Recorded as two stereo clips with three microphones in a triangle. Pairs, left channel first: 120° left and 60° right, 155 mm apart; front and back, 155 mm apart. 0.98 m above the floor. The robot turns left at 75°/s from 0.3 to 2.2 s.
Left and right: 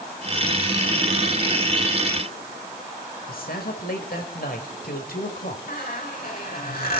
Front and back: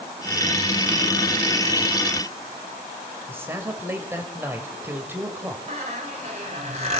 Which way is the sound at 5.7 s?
135° left.